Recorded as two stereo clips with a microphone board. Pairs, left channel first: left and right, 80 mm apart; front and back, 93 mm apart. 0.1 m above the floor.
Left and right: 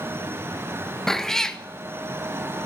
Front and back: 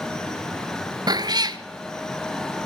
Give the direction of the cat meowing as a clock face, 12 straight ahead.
6 o'clock.